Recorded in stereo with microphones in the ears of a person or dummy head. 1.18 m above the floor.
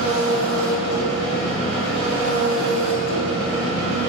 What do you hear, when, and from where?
0.0 s an engine running: 55° right (ahead or behind), 2 m